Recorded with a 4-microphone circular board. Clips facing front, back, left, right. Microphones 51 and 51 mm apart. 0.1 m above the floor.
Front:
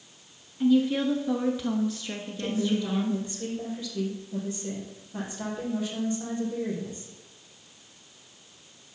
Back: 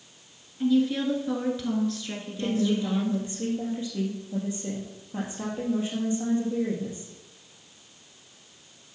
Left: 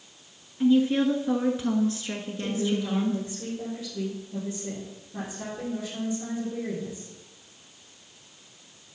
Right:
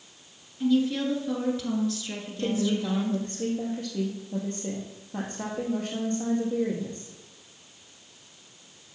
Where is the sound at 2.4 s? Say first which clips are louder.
Back 2 dB, right 2 dB; 115° right, 3 m.